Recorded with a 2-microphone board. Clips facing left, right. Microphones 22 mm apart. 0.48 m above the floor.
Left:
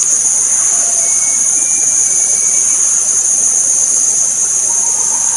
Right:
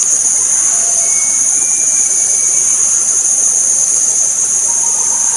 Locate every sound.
Only background noise.